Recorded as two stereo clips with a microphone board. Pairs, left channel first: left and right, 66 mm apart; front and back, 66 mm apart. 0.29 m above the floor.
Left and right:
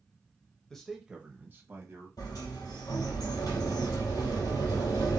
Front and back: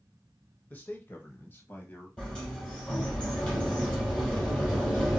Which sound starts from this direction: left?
A sliding door, at 2.2 s.